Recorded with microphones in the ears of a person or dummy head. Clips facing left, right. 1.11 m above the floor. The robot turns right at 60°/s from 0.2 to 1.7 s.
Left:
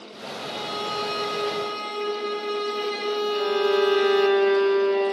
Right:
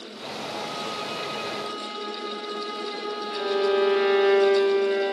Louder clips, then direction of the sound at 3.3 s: Even; 20° right (ahead or behind).